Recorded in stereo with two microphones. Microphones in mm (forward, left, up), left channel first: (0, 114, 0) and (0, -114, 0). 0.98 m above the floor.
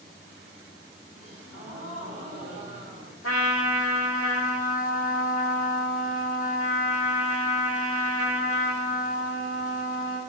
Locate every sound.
1.1 s a gasp: 80° right, 4 m
3.2 s a trumpet: 80° left, 1.3 m